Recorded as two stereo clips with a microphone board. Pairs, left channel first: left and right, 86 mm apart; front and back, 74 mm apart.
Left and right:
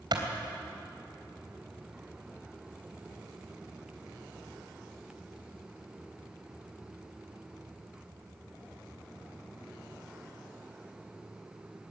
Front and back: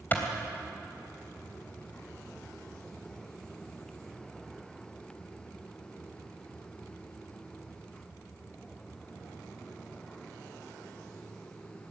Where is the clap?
65° right, 3.5 m.